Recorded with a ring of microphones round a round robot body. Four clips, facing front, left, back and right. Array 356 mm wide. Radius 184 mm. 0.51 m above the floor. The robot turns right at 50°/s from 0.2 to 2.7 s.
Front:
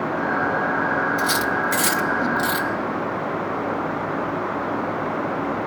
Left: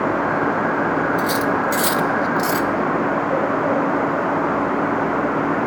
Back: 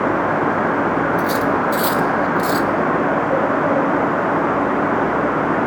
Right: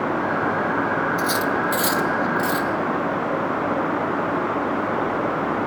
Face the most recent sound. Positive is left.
turn(degrees=70)